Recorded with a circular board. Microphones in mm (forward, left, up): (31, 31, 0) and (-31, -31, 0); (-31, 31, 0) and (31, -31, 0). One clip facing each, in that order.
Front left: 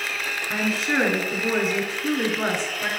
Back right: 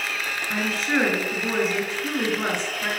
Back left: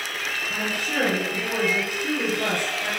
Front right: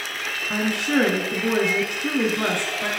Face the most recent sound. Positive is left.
turn(degrees=-45)